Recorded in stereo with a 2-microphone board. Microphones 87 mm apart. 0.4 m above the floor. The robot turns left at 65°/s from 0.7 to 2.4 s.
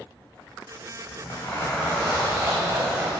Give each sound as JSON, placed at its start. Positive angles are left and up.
{"t": 1.1, "sound": "a zipper", "azimuth_deg": 55, "distance_m": 4.5}